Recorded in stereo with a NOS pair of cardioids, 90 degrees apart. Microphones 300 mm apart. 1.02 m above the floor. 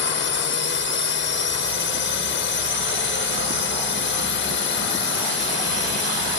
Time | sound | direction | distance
0.0 | a drone | 40° left | ?